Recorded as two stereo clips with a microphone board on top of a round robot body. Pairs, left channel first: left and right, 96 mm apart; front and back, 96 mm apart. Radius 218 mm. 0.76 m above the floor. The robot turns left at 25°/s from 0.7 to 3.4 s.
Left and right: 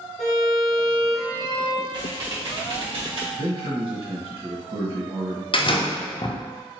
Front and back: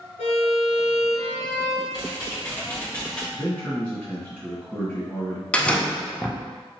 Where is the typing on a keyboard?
50° right, 1.4 m; by 3.2 s 80° right, 1.4 m.